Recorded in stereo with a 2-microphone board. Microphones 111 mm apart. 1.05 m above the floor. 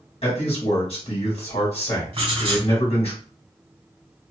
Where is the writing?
55° right (ahead or behind), 1.3 m.